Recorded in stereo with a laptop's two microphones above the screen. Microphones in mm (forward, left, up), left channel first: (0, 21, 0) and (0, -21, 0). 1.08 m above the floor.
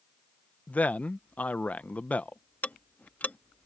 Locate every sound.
0.7 s a man speaking: 35° left (ahead or behind)
2.6 s ticking: 40° left (ahead or behind)